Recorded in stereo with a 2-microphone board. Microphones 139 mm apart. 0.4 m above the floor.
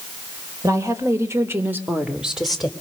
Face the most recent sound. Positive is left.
turn(degrees=5)  # may be behind; listen again after turning